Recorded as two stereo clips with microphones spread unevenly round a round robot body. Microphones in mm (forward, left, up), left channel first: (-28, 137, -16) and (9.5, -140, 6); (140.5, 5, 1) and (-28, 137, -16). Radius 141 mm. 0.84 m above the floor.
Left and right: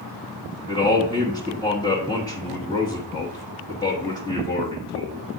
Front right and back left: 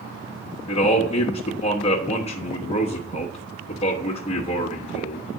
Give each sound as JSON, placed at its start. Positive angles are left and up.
{"t": 0.7, "sound": "a man speaking", "azimuth_deg": 25, "distance_m": 1.0}